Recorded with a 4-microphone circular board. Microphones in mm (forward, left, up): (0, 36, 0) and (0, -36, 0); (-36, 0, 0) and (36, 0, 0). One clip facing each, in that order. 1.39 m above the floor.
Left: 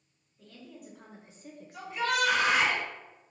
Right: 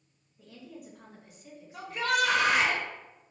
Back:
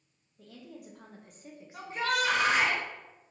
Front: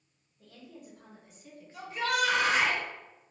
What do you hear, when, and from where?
0.4 s a woman speaking: 165° right, 1.1 m; by 2.7 s 60° left, 1.2 m
1.7 s a shout: 125° right, 1.5 m